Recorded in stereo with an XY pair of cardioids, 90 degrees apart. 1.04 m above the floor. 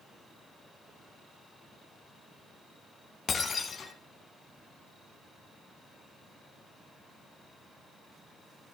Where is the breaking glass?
50° left, 2.5 m.